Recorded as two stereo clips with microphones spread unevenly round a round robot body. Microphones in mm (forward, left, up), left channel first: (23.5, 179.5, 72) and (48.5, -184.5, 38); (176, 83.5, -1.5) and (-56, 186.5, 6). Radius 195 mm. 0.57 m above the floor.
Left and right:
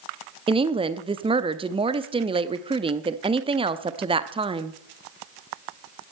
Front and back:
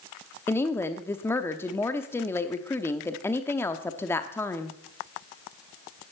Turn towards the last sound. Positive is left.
turn(degrees=-80)